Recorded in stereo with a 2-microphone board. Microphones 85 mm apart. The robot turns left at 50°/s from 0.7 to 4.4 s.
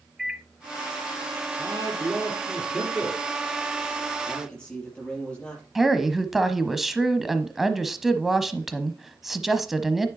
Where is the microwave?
5° right (ahead or behind), 0.7 m.